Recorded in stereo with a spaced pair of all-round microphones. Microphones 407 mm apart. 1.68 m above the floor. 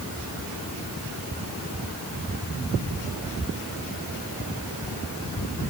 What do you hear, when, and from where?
Only background noise.